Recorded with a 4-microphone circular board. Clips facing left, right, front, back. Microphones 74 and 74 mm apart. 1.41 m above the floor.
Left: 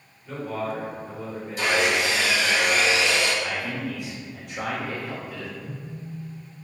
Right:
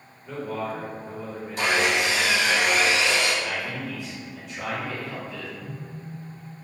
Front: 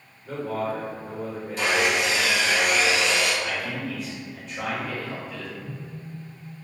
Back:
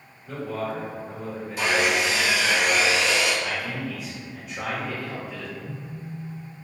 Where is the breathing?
I don't hear breathing.